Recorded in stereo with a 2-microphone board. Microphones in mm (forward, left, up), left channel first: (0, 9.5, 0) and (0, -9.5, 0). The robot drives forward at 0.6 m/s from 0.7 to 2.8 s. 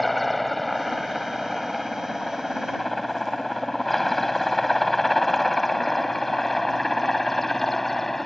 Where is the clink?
No clink in this recording.